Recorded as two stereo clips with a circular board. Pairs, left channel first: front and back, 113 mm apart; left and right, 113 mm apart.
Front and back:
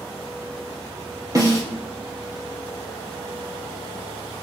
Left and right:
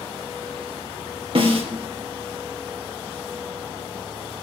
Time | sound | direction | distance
1.4 | a snare drum | 120° right | 1.9 m